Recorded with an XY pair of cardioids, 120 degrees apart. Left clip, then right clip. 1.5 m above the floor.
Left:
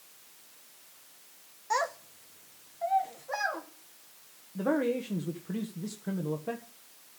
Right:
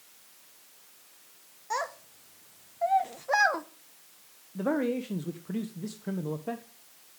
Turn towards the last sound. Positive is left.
turn(degrees=-10)